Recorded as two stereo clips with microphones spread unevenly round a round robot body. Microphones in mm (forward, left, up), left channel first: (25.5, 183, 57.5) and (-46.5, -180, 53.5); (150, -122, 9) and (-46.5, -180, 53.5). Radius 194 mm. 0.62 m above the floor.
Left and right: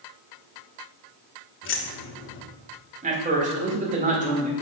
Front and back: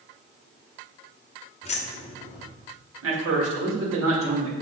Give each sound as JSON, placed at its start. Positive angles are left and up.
{"t": 1.6, "sound": "keys jangling", "azimuth_deg": 35, "distance_m": 0.8}
{"t": 3.0, "sound": "a man speaking", "azimuth_deg": -170, "distance_m": 1.9}